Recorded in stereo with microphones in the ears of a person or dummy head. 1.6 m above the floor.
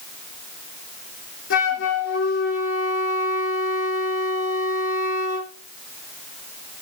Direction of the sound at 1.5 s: 60° left (ahead or behind).